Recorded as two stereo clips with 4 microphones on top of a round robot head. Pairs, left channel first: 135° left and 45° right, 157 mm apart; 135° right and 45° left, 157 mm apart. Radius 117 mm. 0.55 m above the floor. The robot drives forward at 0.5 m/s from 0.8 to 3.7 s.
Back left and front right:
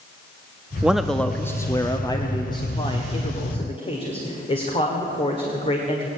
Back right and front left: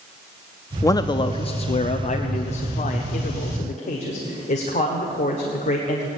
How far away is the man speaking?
About 0.6 m.